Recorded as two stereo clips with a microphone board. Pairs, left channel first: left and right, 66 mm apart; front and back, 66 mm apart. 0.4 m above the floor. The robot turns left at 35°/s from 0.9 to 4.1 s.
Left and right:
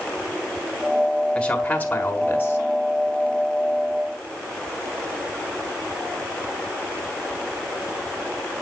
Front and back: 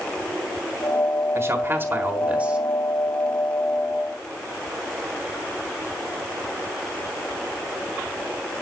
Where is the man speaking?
160° left, 1.5 m; by 2.6 s 115° left, 1.5 m.